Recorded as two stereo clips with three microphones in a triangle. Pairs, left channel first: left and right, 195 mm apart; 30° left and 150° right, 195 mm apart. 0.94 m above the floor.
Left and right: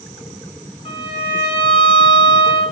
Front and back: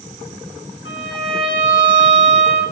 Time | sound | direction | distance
0.8 | a violin | 30° left | 5 m